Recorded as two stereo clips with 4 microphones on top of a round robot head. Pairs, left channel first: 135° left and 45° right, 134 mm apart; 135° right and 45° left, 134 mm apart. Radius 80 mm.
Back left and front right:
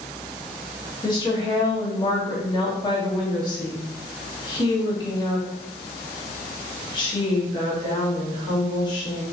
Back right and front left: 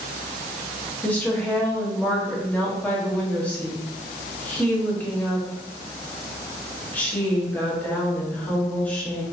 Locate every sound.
1.0 s a woman speaking: 155° left, 1.0 m